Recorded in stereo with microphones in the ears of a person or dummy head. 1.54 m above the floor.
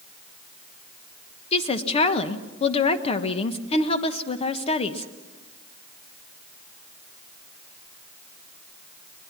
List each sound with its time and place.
1.5 s a woman speaking: 35° left (ahead or behind), 1.3 m